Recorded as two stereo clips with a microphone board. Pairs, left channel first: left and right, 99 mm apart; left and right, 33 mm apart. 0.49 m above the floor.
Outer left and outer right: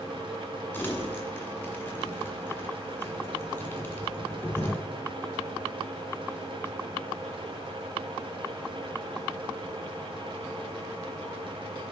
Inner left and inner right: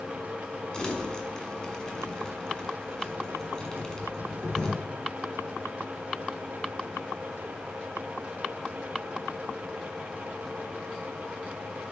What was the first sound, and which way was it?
Crumpling, 20° left (ahead or behind).